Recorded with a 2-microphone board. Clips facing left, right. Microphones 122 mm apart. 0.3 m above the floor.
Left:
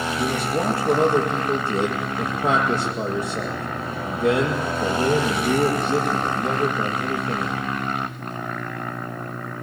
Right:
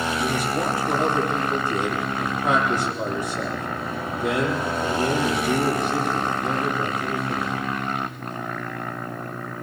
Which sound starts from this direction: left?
A man speaking, at 0.2 s.